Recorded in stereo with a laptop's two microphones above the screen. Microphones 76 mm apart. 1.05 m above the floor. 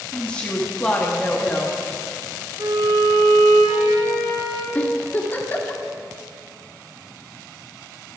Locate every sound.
0.1 s a woman speaking: 15° left (ahead or behind), 1.3 m
2.6 s a violin: 65° right (ahead or behind), 4.5 m
4.8 s a giggle: 25° left (ahead or behind), 1.5 m